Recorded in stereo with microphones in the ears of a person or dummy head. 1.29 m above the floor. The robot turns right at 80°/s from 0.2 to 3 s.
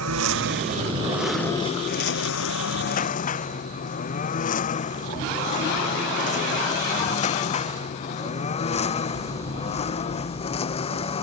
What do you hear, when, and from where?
0.0 s a lawn mower: 85° right; by 11.2 s 30° left (ahead or behind)